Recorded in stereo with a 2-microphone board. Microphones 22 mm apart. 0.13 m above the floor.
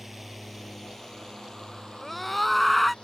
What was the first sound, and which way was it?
A drone, 10° right (ahead or behind).